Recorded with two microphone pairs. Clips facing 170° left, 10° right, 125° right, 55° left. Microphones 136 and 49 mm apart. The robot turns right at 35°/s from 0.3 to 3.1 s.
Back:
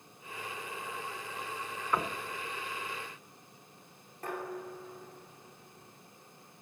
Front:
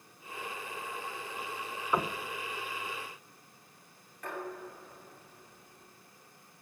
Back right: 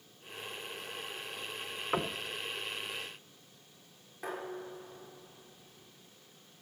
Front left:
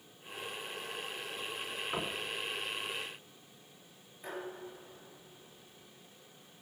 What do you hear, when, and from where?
1.9 s knocking: 80° right, 1.0 m; by 2.2 s 70° right, 1.0 m
4.2 s dishes clattering: 130° right, 8 m